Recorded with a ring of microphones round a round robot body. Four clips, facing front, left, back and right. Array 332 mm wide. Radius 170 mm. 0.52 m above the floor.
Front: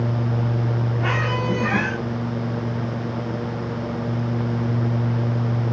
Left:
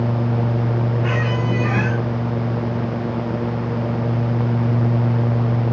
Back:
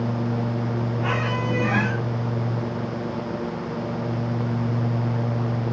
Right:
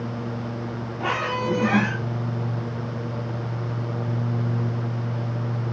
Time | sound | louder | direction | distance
1.0 | a squeak | left 3 dB, front 2 dB | 65° right | 6.5 m